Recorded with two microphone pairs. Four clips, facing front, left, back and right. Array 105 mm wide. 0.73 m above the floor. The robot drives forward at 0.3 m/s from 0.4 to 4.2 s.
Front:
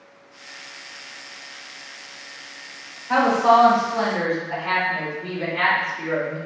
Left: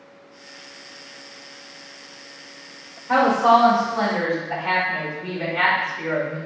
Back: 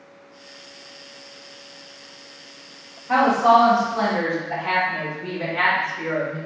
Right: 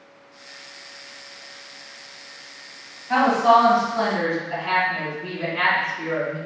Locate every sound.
3.1 s a woman speaking: 115° left, 1.5 m; by 6.4 s 125° left, 1.6 m